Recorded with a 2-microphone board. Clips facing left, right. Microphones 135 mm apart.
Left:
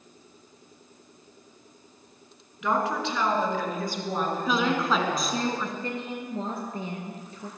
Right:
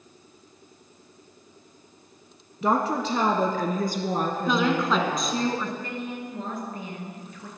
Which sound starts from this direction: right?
A woman speaking, at 2.6 s.